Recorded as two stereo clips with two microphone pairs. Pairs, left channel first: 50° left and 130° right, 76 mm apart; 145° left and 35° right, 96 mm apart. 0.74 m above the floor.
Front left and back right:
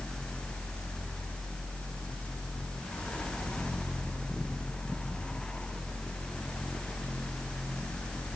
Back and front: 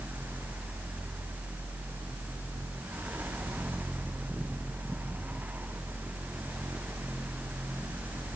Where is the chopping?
No chopping in this recording.